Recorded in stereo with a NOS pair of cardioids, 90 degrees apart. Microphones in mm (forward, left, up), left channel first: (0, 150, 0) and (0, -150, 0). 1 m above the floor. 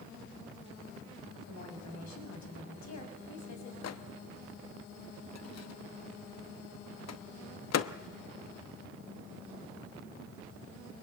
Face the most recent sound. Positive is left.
turn(degrees=55)